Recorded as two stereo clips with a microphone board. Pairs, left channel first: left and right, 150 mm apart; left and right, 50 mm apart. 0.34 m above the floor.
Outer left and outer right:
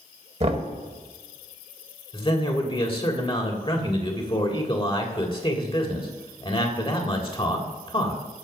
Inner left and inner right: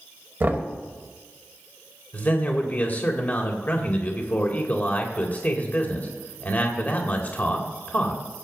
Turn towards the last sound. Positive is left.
turn(degrees=35)  # may be behind; listen again after turning